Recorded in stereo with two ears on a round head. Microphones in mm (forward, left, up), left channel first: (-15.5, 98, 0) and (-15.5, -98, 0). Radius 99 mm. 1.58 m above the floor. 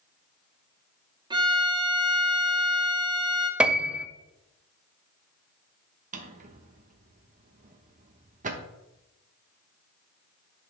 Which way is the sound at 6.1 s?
35° right (ahead or behind).